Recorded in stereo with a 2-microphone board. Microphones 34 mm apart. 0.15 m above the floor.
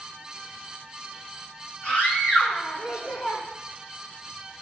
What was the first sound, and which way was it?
A scream, 45° left (ahead or behind).